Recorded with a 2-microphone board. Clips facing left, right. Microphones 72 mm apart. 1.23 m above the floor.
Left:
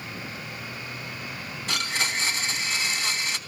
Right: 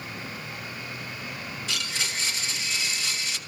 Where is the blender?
45° left (ahead or behind), 1.4 m.